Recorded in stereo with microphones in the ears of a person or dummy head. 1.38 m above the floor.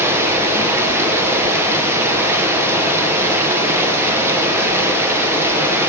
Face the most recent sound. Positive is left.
turn(degrees=-15)  # may be behind; listen again after turning